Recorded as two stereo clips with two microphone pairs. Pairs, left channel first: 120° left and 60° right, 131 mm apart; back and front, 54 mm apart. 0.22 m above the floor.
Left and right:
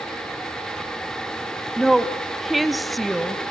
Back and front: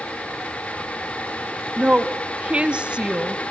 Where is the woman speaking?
25° left, 1.0 m.